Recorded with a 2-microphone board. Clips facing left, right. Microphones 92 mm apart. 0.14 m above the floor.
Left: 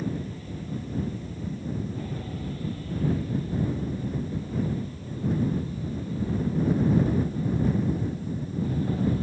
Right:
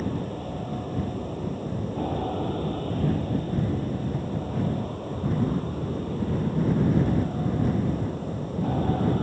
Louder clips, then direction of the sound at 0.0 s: Right 3 dB; 55° right (ahead or behind).